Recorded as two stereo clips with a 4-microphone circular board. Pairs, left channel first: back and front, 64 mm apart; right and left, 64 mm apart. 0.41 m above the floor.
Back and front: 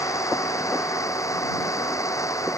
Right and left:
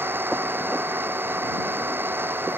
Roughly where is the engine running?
Behind left.